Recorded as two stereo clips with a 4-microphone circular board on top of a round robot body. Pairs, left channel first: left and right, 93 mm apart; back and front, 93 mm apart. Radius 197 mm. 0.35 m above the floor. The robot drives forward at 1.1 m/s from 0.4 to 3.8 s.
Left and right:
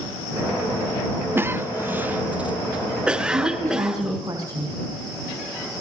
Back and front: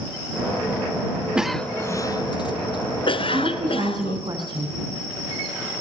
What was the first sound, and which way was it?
A cough, 65° right.